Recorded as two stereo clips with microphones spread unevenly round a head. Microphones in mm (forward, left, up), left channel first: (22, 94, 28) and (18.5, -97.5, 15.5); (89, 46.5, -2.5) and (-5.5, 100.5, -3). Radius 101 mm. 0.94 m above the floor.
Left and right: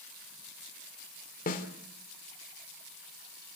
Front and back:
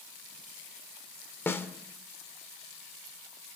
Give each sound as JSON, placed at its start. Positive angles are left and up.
{"t": 1.5, "sound": "a snare drum", "azimuth_deg": 40, "distance_m": 2.5}